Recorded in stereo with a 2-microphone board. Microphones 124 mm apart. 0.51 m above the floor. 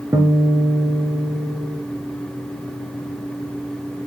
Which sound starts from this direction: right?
A guitar, at 0.1 s.